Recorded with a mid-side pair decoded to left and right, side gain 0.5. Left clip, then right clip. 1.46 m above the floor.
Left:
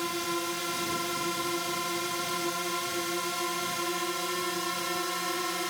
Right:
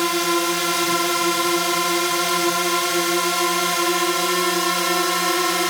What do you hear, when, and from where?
0.0 s a drone: 65° right